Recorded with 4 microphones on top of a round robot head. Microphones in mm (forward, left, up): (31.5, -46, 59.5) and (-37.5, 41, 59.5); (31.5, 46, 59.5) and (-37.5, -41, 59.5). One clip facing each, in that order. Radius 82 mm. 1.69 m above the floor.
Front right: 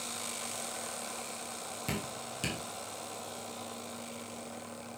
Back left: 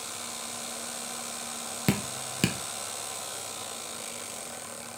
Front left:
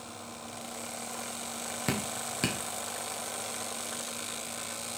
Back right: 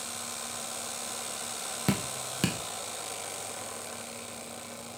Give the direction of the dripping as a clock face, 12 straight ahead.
7 o'clock.